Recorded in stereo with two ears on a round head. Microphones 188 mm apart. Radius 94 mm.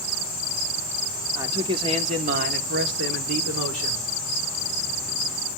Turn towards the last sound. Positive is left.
turn(degrees=-70)  # may be behind; listen again after turning